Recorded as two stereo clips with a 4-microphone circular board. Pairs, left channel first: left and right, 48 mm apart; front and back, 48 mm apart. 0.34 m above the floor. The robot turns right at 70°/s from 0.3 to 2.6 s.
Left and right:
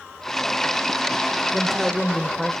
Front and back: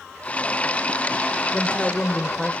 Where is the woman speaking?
15° right, 1.3 m; by 2.5 s 55° left, 1.3 m.